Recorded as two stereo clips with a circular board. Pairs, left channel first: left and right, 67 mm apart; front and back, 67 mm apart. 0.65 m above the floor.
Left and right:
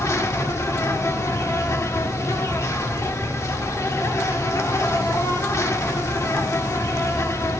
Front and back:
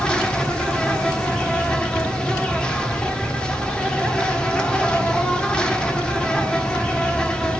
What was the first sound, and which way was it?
An insect, 70° left.